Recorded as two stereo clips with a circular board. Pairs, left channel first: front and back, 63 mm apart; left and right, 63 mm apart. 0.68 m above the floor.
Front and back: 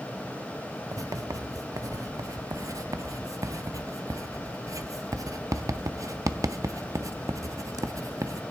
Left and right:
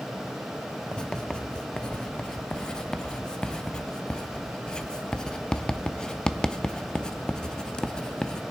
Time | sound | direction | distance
0.9 | writing | 165° left | 0.5 m